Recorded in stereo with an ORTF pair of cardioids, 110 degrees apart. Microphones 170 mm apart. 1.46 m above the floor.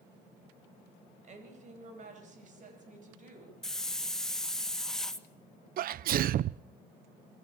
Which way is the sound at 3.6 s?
Straight ahead.